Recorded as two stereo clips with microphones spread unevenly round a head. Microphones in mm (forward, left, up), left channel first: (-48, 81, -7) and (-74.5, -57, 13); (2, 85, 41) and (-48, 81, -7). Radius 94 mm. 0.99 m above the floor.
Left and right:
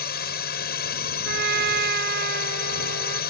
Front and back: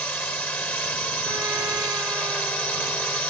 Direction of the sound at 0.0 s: 70° left.